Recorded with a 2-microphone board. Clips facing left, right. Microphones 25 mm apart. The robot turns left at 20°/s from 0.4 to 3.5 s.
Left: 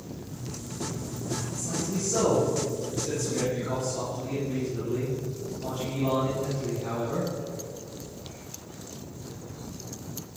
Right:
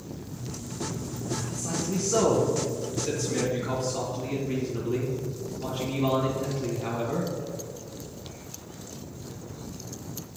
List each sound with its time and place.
1.5 s a man speaking: 100° right, 2.5 m; by 7.3 s 140° right, 2.5 m